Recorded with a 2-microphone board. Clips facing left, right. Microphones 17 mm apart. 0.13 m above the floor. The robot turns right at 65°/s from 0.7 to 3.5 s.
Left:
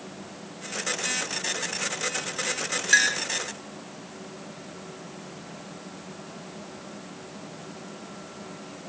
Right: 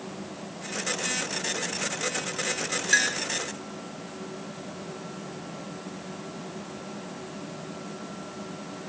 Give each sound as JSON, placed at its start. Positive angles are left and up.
{"t": 2.9, "sound": "a clink", "side_deg": 5}